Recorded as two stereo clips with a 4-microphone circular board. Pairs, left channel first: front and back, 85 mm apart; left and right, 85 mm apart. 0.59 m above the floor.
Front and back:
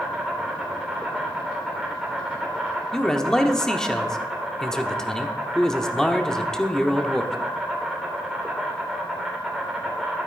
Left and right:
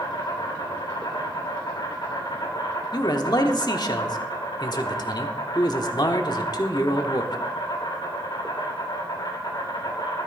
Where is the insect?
95° left, 3 m.